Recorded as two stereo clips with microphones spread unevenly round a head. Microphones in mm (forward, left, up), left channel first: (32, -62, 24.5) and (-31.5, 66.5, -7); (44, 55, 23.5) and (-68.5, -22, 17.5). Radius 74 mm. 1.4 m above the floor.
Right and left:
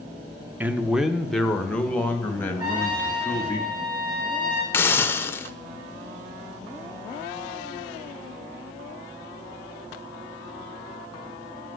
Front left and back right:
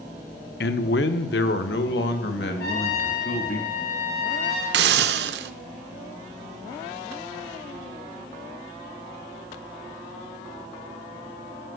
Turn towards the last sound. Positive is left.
turn(degrees=-140)